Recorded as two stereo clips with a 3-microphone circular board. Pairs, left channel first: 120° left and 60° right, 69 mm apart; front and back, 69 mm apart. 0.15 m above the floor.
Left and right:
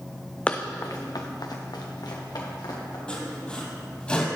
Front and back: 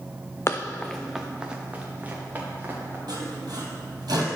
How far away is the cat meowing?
I don't hear a cat meowing.